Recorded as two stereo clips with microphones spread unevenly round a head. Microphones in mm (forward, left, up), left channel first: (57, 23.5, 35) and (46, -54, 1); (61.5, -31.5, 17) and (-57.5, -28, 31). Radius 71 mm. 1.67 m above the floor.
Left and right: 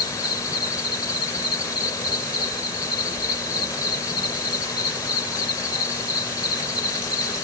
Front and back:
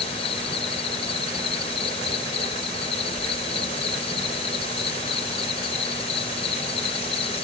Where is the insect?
50° left.